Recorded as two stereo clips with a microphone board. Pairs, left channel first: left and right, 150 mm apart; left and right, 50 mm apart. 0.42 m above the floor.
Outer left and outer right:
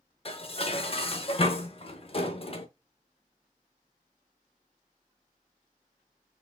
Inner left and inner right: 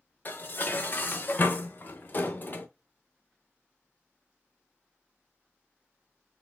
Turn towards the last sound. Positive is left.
turn(degrees=40)  # may be behind; listen again after turning